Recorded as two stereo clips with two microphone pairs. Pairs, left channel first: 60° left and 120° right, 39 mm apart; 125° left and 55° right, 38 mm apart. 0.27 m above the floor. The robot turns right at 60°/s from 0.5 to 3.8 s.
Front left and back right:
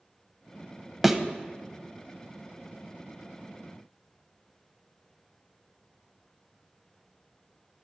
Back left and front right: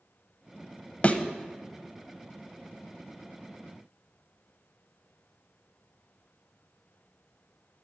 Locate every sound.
1.0 s a thud: 160° left, 0.6 m; by 1.2 s 165° left, 0.6 m